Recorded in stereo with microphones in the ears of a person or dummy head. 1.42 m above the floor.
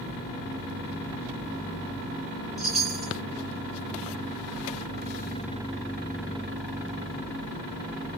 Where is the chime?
Centre (ahead or behind), 2 m.